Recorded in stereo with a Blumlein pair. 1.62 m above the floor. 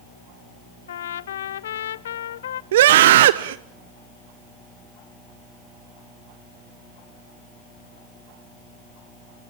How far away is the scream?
About 0.8 m.